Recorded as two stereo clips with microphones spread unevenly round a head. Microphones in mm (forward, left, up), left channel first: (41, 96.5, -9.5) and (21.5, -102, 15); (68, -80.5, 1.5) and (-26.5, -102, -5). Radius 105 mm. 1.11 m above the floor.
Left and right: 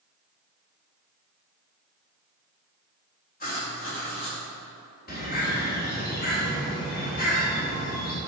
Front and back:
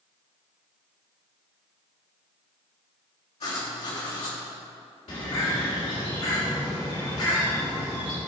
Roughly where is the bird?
Ahead left.